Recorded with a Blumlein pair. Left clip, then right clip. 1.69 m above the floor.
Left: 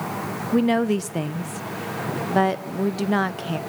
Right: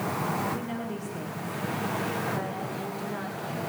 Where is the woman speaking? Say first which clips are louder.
Left 13 dB; 35° left, 1.5 m.